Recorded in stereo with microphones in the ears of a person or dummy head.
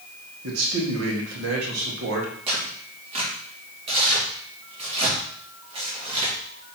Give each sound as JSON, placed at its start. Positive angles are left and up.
{"t": 0.4, "sound": "a man speaking", "side_deg": -80, "distance_m": 1.8}
{"t": 2.5, "sound": "tearing paper", "side_deg": -35, "distance_m": 2.0}